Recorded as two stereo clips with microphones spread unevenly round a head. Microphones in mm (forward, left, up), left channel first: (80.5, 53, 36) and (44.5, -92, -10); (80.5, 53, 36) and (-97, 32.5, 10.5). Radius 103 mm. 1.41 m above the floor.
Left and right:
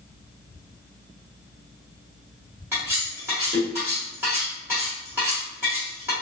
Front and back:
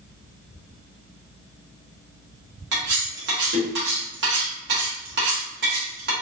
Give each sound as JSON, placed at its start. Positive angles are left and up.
{"t": 2.7, "sound": "cutlery clinking", "azimuth_deg": 170, "distance_m": 1.6}